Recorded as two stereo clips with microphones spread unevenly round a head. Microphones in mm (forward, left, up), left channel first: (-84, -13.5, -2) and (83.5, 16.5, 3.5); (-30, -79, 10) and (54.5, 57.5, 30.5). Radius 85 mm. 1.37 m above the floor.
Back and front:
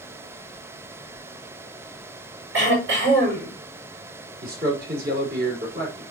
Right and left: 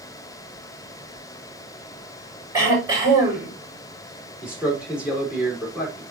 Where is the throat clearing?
15° right, 6.5 m.